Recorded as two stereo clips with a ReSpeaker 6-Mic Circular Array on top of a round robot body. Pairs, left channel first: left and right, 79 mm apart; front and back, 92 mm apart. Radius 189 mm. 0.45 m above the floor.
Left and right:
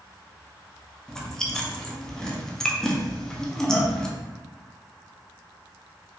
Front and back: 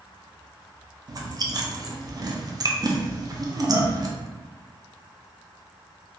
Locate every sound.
1.1 s chewing: 170° left, 0.7 m